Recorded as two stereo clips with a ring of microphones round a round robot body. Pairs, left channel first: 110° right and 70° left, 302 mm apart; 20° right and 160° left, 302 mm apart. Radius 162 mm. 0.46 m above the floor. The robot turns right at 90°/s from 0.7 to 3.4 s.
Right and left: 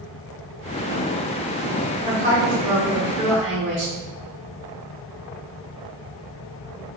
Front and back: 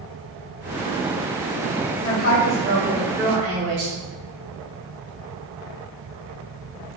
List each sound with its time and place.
2.0 s a woman speaking: 10° right, 1.2 m; by 3.9 s 110° left, 1.2 m